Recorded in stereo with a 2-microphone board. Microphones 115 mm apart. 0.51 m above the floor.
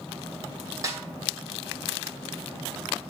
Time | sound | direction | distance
0.8 | a snare drum | 30° right (ahead or behind) | 2.5 m